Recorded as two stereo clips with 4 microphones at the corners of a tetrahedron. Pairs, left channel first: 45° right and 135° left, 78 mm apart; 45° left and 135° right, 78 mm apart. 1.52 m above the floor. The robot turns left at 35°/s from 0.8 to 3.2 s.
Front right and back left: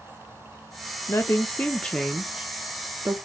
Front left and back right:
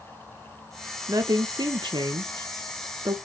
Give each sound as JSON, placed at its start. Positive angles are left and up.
{"t": 1.1, "sound": "a woman speaking", "azimuth_deg": -95, "distance_m": 0.6}